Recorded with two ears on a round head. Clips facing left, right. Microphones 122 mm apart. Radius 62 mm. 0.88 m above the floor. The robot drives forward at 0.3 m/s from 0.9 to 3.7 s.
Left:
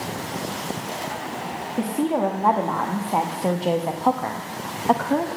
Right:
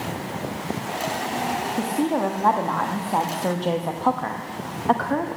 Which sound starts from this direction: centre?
A woman speaking, at 1.8 s.